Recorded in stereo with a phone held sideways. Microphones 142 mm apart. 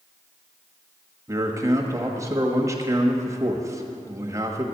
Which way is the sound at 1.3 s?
25° right (ahead or behind).